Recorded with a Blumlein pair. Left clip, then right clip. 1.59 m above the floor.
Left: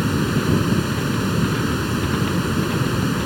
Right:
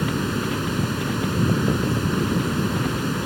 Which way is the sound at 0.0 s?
10° left.